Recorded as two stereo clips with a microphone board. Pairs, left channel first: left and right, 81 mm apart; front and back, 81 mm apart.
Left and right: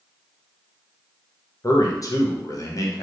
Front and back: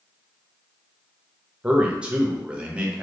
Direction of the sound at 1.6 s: 110° left.